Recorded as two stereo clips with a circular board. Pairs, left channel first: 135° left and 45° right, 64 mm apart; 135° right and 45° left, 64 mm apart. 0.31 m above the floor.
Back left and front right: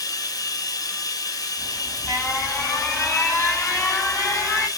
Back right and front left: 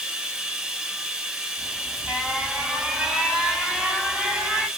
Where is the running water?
125° left, 0.8 m.